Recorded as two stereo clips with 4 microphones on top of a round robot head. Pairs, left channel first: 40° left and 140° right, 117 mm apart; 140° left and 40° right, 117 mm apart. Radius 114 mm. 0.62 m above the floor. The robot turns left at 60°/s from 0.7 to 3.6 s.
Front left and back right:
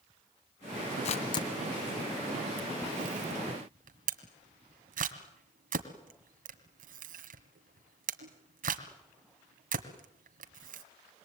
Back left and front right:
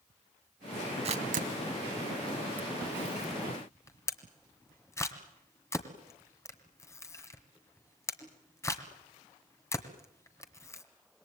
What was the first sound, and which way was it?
A camera shutter, straight ahead.